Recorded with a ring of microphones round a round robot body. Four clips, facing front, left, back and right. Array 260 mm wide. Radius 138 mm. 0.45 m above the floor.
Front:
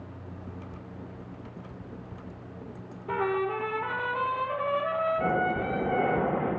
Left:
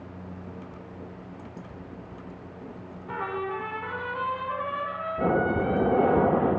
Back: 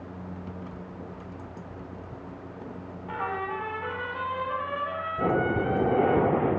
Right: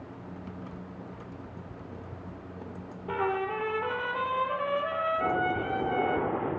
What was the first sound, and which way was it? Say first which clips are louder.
A trumpet: right 2 dB, front 4 dB; 55° right.